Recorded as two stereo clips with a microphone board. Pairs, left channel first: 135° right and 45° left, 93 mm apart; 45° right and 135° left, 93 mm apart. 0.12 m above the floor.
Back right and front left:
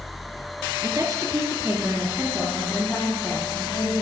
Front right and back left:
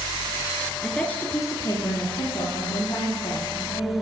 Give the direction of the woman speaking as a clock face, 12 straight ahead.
11 o'clock.